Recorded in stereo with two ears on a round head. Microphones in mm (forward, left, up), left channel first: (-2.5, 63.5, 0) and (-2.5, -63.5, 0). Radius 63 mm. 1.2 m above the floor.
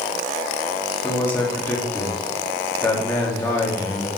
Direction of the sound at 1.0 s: 10° left (ahead or behind).